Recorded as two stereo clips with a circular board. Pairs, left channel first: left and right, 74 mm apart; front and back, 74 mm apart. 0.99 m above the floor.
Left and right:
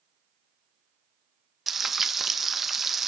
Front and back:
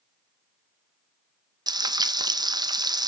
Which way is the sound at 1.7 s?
175° right.